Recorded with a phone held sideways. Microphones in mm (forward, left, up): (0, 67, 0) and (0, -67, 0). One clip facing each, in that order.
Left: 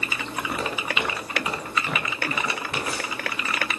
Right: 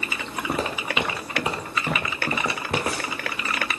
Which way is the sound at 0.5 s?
35° right (ahead or behind).